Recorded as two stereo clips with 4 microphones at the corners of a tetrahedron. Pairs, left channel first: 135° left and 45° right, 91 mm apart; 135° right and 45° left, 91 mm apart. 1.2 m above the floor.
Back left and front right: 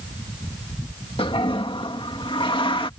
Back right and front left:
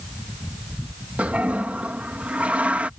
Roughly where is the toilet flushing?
Behind left.